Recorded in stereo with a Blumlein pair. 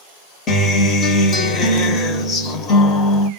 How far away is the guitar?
About 0.7 m.